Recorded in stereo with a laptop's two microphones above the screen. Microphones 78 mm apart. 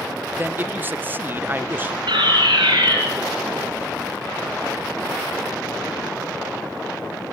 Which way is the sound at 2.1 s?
80° right.